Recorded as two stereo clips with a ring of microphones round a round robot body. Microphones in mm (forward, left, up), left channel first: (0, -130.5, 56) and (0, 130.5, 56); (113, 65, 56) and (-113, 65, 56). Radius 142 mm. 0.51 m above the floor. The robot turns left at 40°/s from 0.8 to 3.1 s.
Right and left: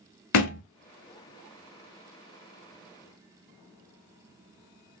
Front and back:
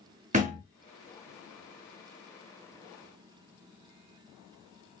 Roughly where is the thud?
Behind right.